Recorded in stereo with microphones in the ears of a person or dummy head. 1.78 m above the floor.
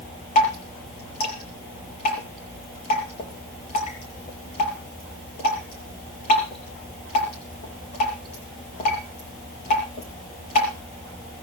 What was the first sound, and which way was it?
Dripping, 45° left (ahead or behind).